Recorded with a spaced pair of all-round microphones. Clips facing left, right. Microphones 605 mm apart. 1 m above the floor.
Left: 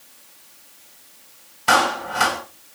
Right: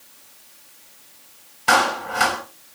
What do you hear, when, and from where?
1.7 s a clap: 5° left (ahead or behind), 5.5 m